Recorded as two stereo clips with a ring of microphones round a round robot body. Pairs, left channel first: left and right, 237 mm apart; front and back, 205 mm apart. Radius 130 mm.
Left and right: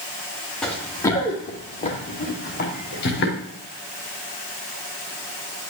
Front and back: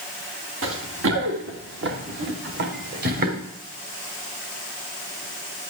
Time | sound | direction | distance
0.6 | running footsteps | 175° left | 3 m